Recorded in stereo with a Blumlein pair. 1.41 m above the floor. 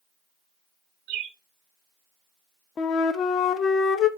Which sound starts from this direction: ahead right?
A bird, at 1.1 s.